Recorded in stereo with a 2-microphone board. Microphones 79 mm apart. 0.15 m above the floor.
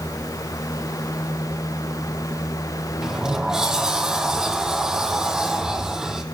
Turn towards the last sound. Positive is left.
turn(degrees=-10)  # may be behind; listen again after turning